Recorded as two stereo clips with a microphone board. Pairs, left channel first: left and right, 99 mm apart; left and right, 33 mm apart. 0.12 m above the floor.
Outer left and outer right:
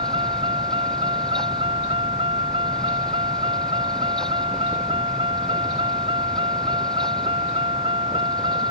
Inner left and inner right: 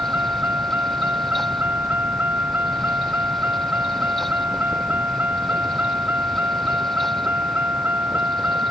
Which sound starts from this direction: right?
A vehicle, at 0.0 s.